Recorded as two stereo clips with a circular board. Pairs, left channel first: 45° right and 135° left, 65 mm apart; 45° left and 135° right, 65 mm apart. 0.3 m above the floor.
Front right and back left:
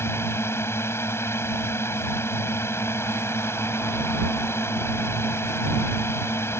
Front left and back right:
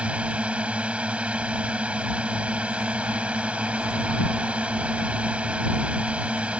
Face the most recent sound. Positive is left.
turn(degrees=-70)